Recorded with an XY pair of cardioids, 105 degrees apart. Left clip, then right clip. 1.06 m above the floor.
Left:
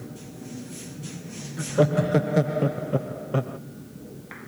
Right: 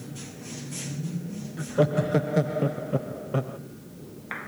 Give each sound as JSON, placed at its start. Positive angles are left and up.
{"t": 1.6, "sound": "laughter", "azimuth_deg": 10, "distance_m": 0.7}